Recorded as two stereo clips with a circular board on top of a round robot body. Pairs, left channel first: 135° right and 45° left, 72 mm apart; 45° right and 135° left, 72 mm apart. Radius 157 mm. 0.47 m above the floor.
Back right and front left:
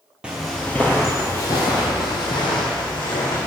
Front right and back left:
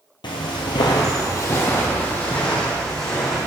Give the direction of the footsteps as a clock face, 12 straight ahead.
1 o'clock.